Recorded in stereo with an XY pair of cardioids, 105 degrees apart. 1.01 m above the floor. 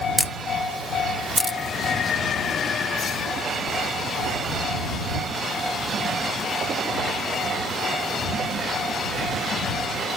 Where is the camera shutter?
Straight ahead.